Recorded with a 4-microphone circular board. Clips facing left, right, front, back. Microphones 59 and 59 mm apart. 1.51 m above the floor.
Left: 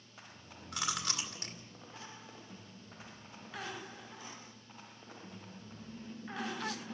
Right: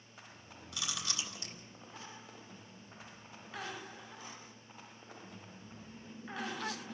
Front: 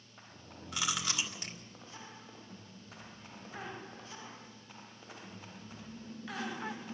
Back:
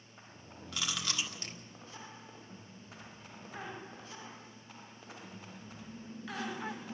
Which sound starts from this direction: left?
Chewing, at 0.7 s.